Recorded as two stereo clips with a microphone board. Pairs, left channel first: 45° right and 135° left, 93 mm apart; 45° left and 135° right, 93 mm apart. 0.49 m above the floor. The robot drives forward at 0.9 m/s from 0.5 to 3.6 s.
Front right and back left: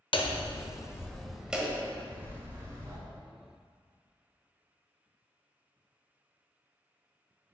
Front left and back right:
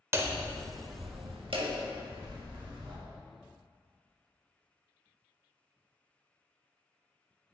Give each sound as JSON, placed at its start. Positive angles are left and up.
{"t": 0.1, "sound": "hammering", "azimuth_deg": -75, "distance_m": 0.6}